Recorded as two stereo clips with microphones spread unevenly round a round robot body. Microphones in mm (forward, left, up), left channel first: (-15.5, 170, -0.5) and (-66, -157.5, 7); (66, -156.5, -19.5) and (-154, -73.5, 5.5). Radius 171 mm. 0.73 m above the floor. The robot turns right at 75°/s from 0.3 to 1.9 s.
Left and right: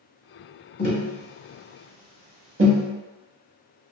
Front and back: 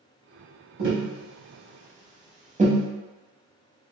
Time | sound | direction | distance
0.8 | tapping | 135° left | 1.0 m